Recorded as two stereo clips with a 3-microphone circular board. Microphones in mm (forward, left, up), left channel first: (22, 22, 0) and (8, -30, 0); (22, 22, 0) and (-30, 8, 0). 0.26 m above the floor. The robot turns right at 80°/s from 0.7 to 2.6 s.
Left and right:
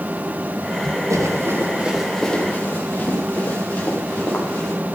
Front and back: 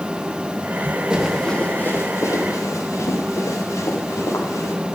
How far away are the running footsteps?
About 9.5 m.